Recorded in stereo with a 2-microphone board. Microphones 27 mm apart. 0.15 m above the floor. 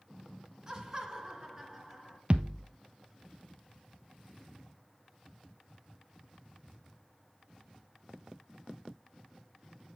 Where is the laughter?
20° right (ahead or behind), 1.6 m; by 2.2 s 15° right (ahead or behind), 2 m.